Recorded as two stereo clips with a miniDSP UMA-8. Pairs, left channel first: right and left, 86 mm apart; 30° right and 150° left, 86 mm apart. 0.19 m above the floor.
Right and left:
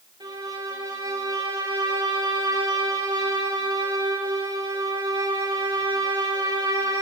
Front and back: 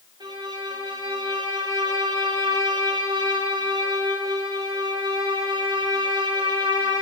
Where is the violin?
115° left, 6 m.